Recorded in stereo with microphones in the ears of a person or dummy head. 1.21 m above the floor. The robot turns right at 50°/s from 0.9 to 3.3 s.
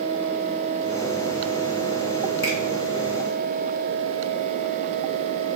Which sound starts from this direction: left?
A finger snap, at 2.4 s.